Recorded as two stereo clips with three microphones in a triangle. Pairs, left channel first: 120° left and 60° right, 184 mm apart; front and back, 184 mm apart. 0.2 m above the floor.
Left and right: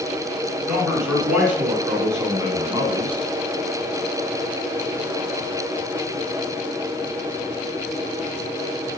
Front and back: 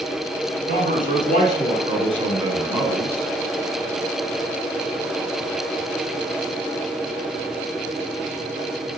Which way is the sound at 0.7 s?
150° right.